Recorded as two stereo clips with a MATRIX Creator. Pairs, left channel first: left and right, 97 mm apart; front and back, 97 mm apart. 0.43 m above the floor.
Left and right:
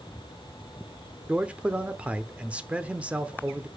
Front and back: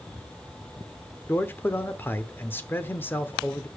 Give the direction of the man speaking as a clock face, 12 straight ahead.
1 o'clock.